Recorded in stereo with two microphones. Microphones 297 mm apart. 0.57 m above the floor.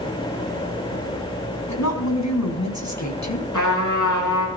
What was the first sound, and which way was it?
A woman speaking, 65° left (ahead or behind).